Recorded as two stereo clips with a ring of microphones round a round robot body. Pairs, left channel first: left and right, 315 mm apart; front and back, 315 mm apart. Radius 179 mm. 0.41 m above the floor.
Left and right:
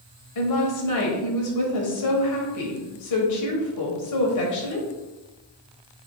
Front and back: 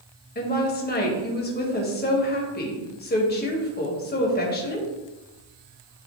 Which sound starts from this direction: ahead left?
A woman speaking, at 0.3 s.